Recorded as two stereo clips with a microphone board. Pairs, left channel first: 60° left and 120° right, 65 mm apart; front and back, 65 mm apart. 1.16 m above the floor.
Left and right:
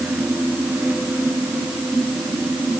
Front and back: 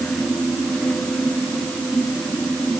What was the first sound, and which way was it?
Only background noise.